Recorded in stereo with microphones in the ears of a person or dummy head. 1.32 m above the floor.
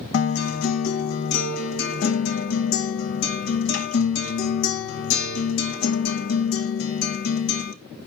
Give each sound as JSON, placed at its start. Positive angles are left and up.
{"t": 0.1, "sound": "a guitar", "side_deg": 60, "distance_m": 1.0}